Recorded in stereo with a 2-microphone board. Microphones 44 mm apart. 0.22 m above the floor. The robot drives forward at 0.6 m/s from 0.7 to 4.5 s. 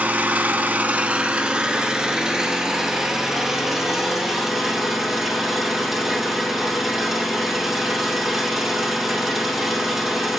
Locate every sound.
0.0 s an engine running: 45° right (ahead or behind), 0.8 m; by 10.4 s 10° right (ahead or behind), 3 m